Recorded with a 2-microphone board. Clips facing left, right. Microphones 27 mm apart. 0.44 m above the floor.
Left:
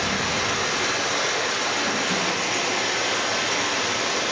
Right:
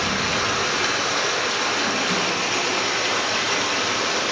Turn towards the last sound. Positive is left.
turn(degrees=-35)  # may be behind; listen again after turning